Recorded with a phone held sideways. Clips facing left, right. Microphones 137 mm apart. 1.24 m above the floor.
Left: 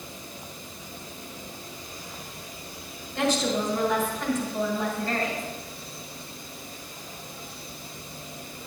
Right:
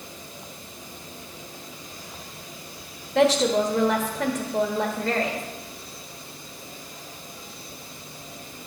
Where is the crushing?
I don't hear crushing.